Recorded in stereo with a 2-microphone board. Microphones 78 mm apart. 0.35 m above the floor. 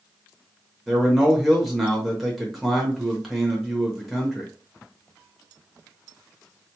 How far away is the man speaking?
About 0.9 m.